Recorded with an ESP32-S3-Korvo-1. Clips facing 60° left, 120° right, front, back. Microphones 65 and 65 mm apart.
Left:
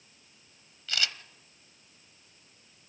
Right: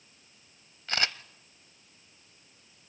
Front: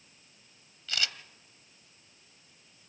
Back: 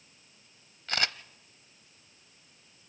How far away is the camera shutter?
About 0.7 m.